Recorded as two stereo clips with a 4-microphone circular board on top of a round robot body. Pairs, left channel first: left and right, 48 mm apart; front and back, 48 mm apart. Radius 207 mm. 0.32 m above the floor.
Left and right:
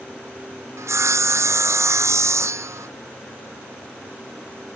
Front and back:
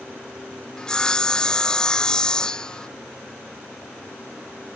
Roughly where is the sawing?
Right.